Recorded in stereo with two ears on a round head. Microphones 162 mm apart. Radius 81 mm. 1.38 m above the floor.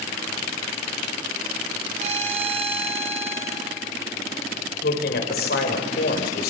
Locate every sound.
2.0 s a violin: 40° right (ahead or behind), 3 m
4.8 s a man speaking: 60° left (ahead or behind), 5.5 m